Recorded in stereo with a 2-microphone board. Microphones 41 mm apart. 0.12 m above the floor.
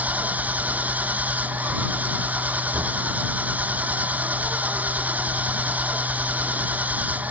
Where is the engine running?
40° right (ahead or behind).